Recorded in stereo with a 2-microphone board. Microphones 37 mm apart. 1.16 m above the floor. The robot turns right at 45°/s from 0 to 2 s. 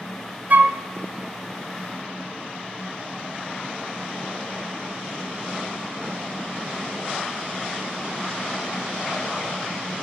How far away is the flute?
About 0.8 m.